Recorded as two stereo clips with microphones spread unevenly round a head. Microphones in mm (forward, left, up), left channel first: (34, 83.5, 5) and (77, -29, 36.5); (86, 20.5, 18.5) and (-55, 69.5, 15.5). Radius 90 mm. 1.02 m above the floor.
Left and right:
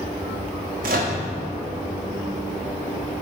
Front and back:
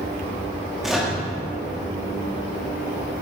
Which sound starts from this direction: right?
A microwave, at 0.8 s.